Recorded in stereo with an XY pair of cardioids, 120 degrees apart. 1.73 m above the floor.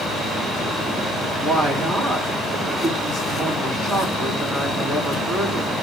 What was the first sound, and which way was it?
A woman speaking, 55° right.